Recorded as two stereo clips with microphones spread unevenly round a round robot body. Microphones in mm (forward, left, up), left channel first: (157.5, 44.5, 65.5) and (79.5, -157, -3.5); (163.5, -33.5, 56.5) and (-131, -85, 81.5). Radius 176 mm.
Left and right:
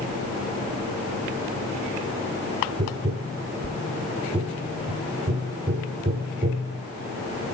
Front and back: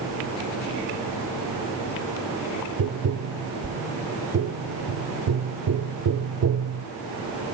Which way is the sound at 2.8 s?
145° right.